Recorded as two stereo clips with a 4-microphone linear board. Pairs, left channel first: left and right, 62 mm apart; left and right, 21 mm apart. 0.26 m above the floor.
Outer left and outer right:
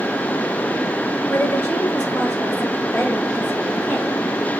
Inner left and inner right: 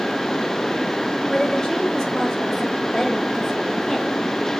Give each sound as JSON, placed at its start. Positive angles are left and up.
{"t": 1.3, "sound": "a woman speaking", "side_deg": 25, "distance_m": 4.0}